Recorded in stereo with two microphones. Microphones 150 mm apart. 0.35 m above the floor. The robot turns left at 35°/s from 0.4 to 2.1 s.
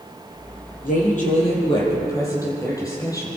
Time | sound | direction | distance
0.8 | a woman speaking | 65° left | 9 m